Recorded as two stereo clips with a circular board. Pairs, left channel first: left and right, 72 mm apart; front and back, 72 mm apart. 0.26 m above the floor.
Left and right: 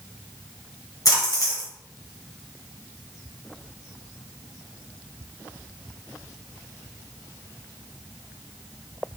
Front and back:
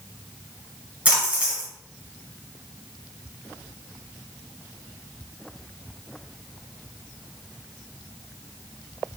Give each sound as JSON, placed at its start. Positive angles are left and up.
{"t": 1.1, "sound": "a splash", "azimuth_deg": 115, "distance_m": 1.3}